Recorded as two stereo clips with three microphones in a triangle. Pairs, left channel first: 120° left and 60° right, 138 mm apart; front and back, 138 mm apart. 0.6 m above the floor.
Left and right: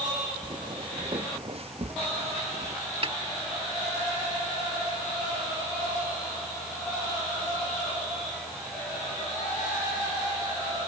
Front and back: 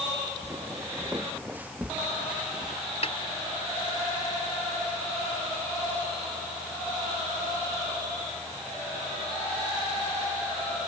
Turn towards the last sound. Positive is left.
turn(degrees=-25)